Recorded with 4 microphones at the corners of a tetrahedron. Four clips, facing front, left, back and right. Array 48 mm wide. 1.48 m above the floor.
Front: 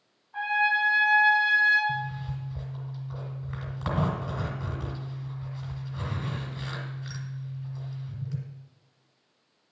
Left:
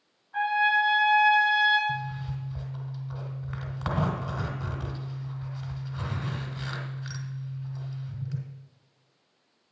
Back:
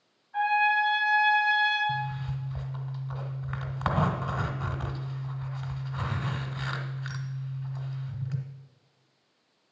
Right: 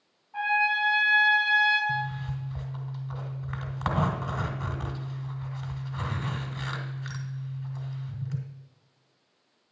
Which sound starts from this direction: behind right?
A zipper, at 1.9 s.